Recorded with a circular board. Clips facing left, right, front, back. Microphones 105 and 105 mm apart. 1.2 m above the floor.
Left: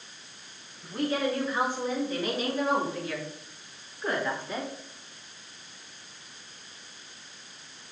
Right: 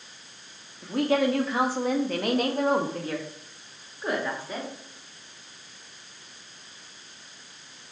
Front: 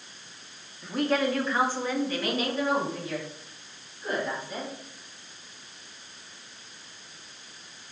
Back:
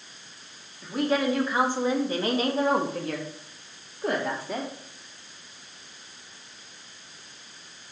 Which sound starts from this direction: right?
A woman speaking, at 0.8 s.